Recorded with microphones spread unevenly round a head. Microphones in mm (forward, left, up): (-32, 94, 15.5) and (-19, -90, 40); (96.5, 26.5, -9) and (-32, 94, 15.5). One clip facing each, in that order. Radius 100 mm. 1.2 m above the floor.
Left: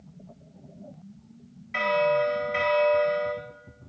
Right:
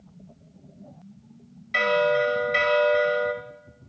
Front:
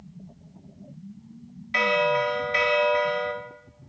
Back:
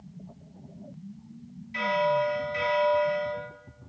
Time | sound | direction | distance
1.7 | a bell | 35° right | 2.5 m